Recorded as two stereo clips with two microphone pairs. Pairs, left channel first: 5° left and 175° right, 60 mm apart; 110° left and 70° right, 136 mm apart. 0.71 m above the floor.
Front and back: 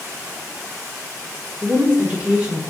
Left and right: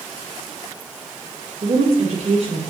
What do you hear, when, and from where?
1.6 s a woman speaking: 110° right, 1.7 m